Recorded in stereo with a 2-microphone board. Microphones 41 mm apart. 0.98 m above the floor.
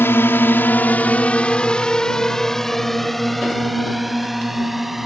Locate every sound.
0.0 s a drone: 70° left (ahead or behind); by 5.1 s 5° right (ahead or behind)